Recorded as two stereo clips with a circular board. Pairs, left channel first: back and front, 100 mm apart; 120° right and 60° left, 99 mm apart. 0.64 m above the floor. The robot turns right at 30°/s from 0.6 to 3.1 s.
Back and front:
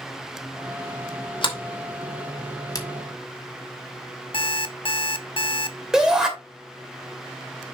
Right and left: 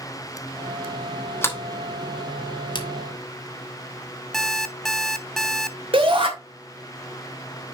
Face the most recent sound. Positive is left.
turn(degrees=85)